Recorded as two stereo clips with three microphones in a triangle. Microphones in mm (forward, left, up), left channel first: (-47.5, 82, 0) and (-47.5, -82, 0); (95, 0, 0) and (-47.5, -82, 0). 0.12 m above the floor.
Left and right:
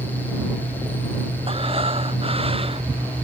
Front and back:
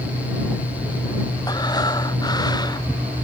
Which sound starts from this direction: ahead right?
Breathing, at 1.5 s.